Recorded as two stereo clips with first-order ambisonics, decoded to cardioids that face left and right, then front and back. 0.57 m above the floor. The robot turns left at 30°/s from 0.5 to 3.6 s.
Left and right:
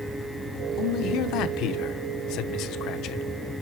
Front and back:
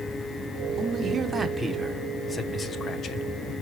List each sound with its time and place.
0.8 s a man speaking: 125° left, 1.0 m; by 3.2 s 50° left, 1.0 m